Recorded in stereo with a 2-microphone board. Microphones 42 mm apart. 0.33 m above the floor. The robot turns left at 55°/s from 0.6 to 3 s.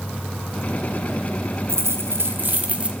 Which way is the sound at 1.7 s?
90° right.